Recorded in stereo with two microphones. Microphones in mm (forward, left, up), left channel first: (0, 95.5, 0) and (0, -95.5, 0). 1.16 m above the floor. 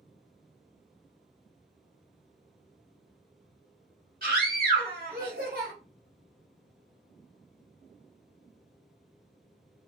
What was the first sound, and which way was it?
A scream, 50° right (ahead or behind).